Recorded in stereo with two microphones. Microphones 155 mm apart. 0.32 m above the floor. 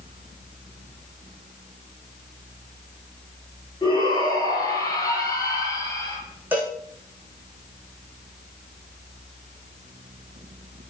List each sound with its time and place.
3.8 s a shout: 25° left (ahead or behind), 6 m; by 6.2 s 20° left (ahead or behind), 7 m
6.5 s a cowbell: 10° right (ahead or behind), 5.5 m